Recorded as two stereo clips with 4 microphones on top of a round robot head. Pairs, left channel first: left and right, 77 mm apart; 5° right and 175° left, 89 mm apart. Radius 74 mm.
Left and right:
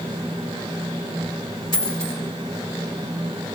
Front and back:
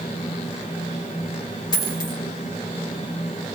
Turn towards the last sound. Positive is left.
turn(degrees=35)